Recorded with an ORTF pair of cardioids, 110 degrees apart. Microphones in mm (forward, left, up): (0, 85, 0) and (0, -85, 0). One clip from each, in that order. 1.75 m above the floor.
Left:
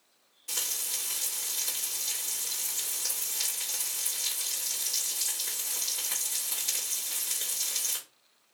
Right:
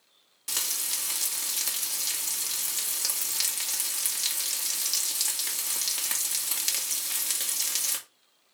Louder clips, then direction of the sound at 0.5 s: Right 2 dB; 60° right.